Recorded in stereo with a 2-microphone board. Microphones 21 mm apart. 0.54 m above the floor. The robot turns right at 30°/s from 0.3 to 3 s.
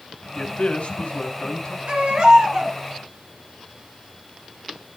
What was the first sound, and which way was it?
A man speaking, 65° left.